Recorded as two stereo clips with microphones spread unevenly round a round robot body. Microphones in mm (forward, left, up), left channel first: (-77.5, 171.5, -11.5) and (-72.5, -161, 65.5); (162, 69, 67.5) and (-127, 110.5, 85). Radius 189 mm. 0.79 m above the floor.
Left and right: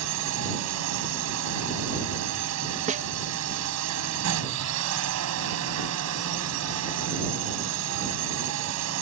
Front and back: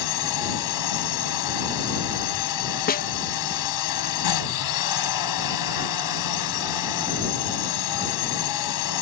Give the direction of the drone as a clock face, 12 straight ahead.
1 o'clock.